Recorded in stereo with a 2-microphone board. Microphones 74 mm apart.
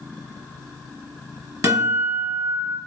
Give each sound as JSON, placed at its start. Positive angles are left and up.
{"t": 1.6, "sound": "a guitar", "side_deg": -50, "distance_m": 1.8}